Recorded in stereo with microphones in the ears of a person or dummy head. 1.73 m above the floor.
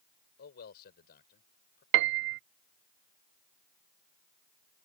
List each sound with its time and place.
0.4 s a man speaking: 55° left (ahead or behind); by 1.8 s 50° left (ahead or behind)
1.9 s a piano: 60° right (ahead or behind)